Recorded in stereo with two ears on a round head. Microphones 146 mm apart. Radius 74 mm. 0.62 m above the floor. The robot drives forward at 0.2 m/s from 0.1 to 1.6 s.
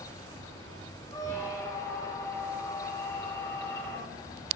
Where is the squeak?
20° left (ahead or behind), 0.6 m; by 4.2 s 15° left (ahead or behind), 0.7 m.